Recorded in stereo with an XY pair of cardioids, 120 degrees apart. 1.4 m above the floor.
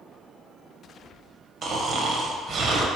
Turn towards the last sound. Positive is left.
turn(degrees=-45)